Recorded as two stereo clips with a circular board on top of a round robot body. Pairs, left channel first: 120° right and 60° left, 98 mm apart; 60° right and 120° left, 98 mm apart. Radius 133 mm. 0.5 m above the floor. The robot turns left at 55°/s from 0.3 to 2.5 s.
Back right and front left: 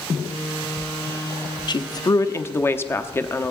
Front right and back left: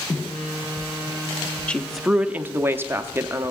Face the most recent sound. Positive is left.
turn(degrees=180)